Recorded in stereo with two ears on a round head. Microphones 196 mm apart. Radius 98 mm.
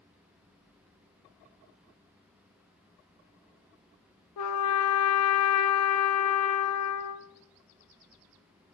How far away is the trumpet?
About 0.6 m.